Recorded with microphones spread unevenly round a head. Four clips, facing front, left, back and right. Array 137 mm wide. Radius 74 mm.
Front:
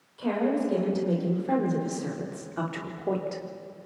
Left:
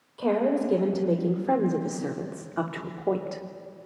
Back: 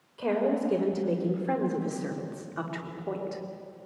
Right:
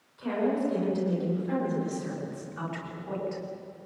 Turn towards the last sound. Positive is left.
turn(degrees=70)